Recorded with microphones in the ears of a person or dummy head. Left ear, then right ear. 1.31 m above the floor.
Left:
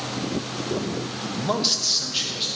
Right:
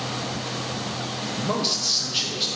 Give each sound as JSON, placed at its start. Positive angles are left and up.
{"t": 1.3, "sound": "a man speaking", "side_deg": 35, "distance_m": 0.6}